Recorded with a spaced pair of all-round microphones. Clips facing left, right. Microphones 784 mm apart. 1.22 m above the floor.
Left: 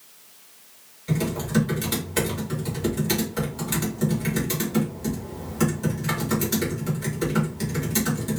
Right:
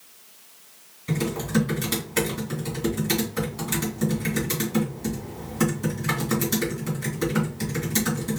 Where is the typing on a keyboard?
Centre (ahead or behind), 2 m.